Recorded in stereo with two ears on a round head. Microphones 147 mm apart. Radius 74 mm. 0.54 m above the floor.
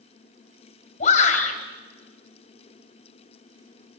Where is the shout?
45° left (ahead or behind), 3.5 m.